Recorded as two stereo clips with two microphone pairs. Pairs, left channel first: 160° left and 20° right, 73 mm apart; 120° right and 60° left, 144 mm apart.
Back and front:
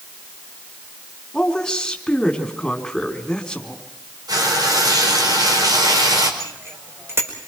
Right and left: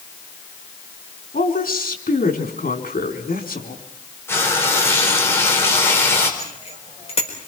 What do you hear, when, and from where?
1.3 s a woman speaking: 120° right, 3.5 m
4.3 s frying: 45° right, 4.5 m
6.4 s a bicycle bell: 75° right, 4.5 m